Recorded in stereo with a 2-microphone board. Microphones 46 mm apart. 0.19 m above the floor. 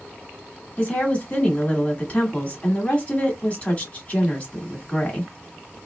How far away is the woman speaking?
About 1.2 m.